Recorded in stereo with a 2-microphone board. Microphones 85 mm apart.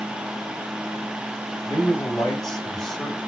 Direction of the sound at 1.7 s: 5° left (ahead or behind).